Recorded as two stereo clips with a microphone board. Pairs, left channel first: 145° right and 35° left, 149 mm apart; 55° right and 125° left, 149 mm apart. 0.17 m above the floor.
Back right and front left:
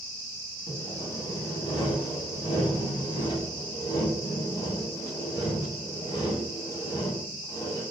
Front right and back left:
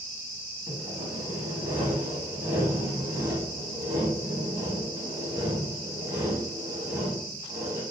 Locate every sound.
0.7 s sawing: 175° right, 0.8 m